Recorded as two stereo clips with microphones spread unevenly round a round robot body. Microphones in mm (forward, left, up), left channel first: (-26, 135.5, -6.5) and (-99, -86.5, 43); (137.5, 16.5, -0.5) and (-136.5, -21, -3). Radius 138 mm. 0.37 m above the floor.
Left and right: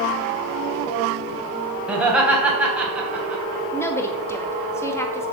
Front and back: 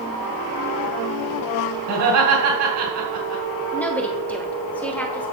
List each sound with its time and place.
1.9 s laughter: 160° left, 3 m
3.7 s a woman speaking: 85° left, 1.2 m